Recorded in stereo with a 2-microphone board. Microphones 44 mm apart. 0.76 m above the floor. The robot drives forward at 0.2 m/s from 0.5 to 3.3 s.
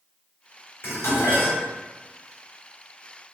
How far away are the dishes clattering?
About 1.8 m.